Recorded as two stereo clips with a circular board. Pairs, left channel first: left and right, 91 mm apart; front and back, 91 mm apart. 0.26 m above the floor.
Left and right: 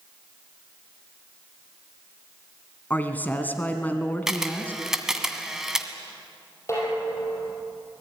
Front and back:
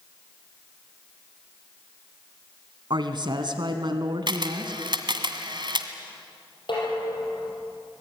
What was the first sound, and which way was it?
A woman speaking, 160° left.